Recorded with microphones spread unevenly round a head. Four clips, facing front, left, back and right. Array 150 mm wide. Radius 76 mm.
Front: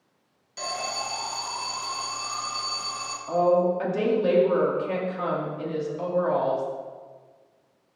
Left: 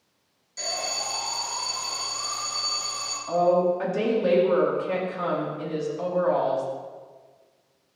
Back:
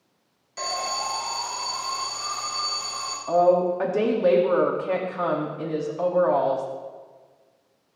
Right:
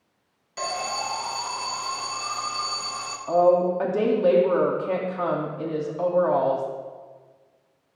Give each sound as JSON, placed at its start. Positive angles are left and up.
{"t": 0.6, "sound": "an alarm", "azimuth_deg": -125, "distance_m": 2.5}
{"t": 3.3, "sound": "a woman speaking", "azimuth_deg": -155, "distance_m": 2.5}